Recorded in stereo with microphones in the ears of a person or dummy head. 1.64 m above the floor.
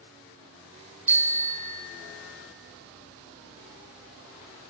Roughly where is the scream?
I don't hear a scream.